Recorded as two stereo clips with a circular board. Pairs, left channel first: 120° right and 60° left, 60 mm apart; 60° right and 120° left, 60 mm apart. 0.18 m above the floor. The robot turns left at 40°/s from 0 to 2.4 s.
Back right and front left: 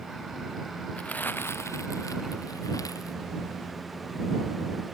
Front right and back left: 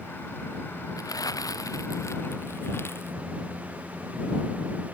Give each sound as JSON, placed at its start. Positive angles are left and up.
{"t": 1.0, "sound": "crumpling", "azimuth_deg": -50}